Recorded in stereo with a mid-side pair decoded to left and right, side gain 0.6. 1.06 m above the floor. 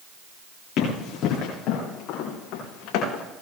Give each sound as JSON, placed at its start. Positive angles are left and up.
{"t": 0.8, "sound": "running footsteps", "azimuth_deg": 60, "distance_m": 8.0}